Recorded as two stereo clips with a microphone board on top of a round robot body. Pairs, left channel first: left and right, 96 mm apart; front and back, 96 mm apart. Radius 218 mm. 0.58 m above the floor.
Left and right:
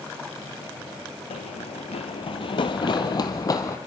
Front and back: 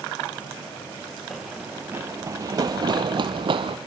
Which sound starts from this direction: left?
Running footsteps, at 1.3 s.